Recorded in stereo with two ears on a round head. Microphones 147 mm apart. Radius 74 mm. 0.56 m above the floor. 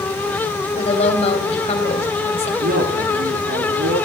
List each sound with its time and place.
0.8 s a woman speaking: 40° left (ahead or behind), 2.5 m
2.6 s a man speaking: 70° right (ahead or behind), 8.5 m